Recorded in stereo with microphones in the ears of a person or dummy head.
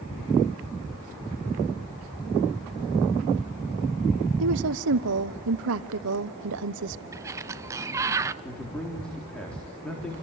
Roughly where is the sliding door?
Centre.